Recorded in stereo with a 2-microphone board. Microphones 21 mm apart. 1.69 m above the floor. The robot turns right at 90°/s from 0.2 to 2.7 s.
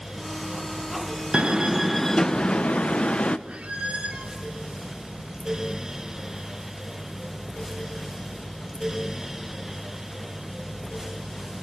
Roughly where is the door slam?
Ahead right.